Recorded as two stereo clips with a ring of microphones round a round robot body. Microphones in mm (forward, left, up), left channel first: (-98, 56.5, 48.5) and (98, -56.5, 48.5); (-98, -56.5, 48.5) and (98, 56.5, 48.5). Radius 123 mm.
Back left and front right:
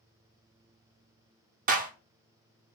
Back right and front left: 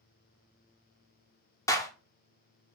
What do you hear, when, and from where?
1.7 s a clap: 75° right, 1.0 m